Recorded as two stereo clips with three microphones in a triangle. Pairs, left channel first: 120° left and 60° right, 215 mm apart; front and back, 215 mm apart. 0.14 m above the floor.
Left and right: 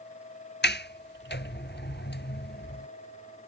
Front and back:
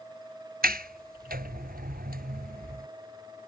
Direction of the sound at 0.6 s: 140° left.